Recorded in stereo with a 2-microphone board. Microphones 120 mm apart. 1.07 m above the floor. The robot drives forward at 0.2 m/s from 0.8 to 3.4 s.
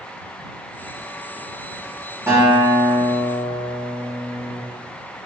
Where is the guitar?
25° right (ahead or behind), 1.7 m.